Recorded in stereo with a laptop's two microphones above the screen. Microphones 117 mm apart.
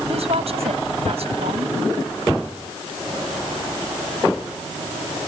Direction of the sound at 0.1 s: 60° right (ahead or behind).